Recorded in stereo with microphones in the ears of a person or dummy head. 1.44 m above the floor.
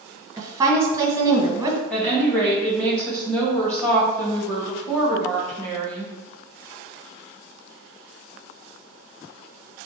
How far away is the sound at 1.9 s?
About 1.6 m.